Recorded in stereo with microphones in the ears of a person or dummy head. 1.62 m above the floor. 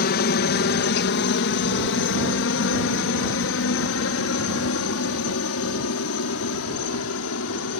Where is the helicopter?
50° left (ahead or behind); by 7.8 s 75° left (ahead or behind).